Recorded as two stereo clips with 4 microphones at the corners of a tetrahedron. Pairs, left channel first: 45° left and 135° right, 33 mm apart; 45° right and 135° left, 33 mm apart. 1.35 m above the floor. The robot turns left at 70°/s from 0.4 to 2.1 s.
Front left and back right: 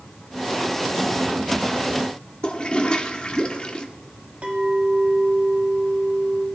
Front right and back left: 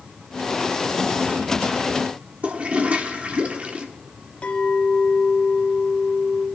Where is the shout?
I don't hear a shout.